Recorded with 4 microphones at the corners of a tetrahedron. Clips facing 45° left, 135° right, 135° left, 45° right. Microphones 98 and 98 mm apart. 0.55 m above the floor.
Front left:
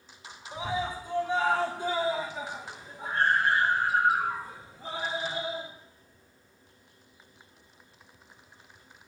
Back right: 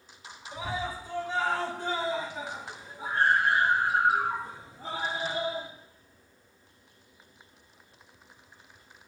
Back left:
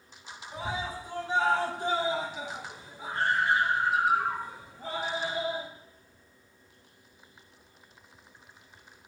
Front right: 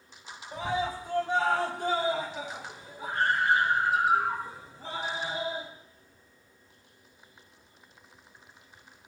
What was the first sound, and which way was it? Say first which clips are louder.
A scream: front left 2 dB, front right 4 dB; 20° right.